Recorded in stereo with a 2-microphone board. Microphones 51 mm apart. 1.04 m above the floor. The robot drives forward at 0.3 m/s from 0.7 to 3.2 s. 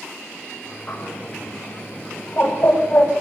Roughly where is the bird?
Left.